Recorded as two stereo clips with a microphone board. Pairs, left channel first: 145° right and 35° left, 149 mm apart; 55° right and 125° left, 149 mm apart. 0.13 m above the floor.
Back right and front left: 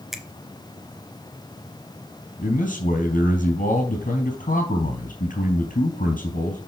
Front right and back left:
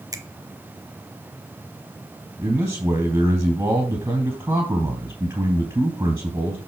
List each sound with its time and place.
0.1 s a finger snap: 120° left, 1.0 m
2.4 s a man speaking: 170° right, 3 m